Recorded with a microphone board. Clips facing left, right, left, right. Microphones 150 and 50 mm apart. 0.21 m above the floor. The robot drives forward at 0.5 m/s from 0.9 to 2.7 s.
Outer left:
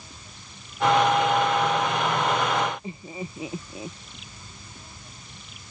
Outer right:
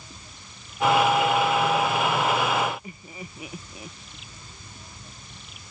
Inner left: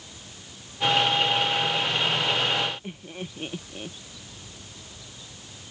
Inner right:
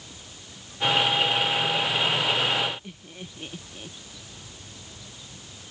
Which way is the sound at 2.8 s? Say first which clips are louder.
Outer left 6 dB, inner left 5 dB; 25° left (ahead or behind).